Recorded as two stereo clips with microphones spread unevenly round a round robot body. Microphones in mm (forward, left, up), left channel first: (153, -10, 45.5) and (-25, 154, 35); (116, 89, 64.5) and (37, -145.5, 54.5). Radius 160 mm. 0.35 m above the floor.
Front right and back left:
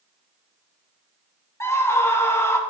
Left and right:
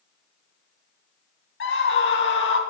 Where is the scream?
35° left, 3.5 m.